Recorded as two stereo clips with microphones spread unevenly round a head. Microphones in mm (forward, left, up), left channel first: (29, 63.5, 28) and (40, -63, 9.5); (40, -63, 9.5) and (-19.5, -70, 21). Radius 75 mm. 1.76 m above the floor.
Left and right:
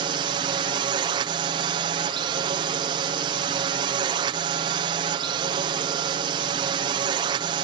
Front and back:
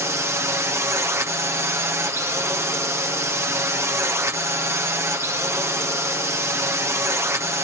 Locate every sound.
0.0 s a drone: 130° right